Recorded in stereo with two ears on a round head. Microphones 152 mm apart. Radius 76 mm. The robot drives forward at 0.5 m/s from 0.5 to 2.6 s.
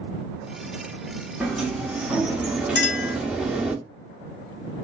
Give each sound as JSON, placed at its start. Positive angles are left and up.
{"t": 1.4, "sound": "a sliding door", "side_deg": -5, "distance_m": 0.8}
{"t": 2.8, "sound": "a clink", "side_deg": 75, "distance_m": 1.2}